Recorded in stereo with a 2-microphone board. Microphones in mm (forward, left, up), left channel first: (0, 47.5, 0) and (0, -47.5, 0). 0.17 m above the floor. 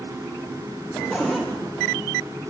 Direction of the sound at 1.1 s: Centre (ahead or behind).